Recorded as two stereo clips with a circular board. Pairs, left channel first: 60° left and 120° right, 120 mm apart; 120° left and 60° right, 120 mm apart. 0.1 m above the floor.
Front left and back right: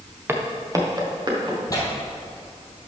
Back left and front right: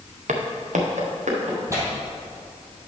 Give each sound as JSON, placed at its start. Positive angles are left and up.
{"t": 0.3, "sound": "footsteps", "azimuth_deg": -50, "distance_m": 1.5}
{"t": 1.7, "sound": "tearing paper", "azimuth_deg": 5, "distance_m": 2.0}